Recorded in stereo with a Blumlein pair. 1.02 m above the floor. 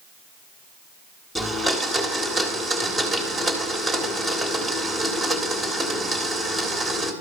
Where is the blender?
Straight ahead, 1.6 m.